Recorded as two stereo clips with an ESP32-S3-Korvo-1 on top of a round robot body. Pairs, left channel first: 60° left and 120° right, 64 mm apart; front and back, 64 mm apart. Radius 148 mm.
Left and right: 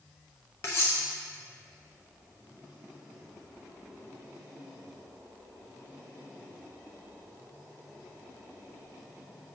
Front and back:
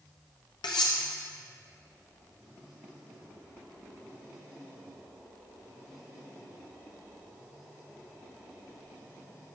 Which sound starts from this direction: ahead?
Cutlery clinking, at 0.6 s.